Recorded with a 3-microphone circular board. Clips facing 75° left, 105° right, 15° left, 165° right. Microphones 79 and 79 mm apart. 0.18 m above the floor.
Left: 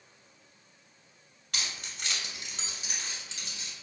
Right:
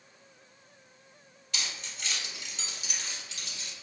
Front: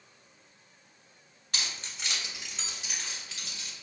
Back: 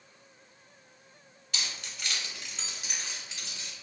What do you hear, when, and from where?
1.5 s keys jangling: 55° left, 1.2 m; by 3.7 s 140° left, 1.7 m